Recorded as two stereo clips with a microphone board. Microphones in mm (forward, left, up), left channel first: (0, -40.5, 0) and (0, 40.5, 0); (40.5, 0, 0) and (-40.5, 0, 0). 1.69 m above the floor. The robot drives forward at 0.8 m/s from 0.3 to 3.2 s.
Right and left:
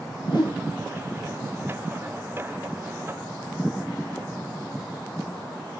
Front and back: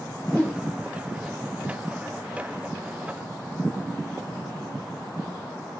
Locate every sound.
0.3 s a whoosh: 70° right, 3 m; by 0.6 s 75° right, 3 m